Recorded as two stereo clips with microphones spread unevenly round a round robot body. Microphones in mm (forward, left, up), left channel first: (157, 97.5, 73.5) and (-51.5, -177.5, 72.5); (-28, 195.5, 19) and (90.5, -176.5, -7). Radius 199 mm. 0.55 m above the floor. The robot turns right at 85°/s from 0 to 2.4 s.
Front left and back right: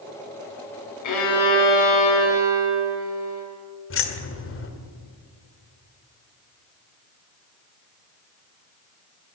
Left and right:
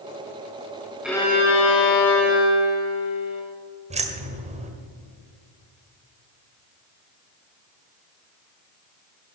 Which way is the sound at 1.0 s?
15° left.